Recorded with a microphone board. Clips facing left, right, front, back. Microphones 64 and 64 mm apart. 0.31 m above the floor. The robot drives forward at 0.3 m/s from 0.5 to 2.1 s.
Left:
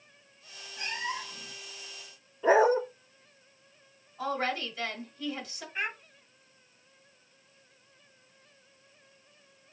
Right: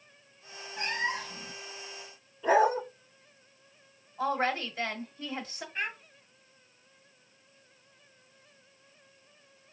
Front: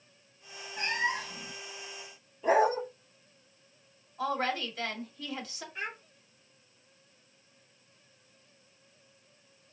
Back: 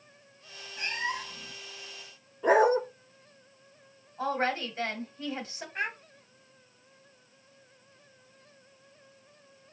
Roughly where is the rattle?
No rattle in this recording.